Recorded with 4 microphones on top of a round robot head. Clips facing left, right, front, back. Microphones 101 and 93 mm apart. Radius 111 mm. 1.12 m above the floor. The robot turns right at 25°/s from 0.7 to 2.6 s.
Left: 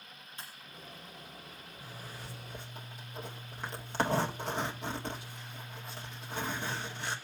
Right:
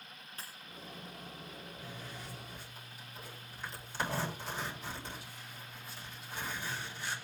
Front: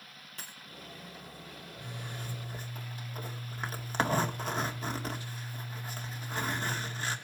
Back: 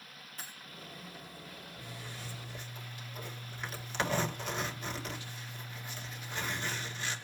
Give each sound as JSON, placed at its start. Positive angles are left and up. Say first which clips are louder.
{"t": 0.4, "sound": "breaking glass", "louder": "left 1 dB, even", "azimuth_deg": -30, "distance_m": 5.0}
{"t": 1.8, "sound": "a zipper", "louder": "left 3 dB, front 5 dB", "azimuth_deg": 30, "distance_m": 2.5}